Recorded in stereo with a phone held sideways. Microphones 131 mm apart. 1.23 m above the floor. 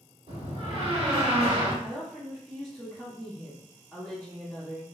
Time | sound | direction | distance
0.3 | a door slam | 50° right (ahead or behind) | 1.5 m
1.8 | a woman speaking | 5° left (ahead or behind) | 1.0 m